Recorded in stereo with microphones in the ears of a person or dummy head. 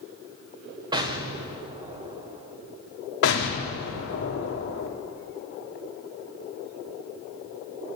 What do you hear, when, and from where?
0.9 s an explosion: 25° right (ahead or behind), 0.9 m
3.2 s an explosion: 65° left (ahead or behind), 1.3 m